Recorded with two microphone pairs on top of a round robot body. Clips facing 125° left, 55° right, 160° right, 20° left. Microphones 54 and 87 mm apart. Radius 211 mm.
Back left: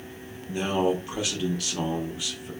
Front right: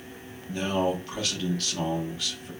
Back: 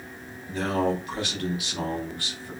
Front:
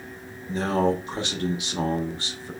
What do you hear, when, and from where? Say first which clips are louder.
0.5 s a man speaking: back left 2 dB, front 2 dB; 65° left, 1.1 m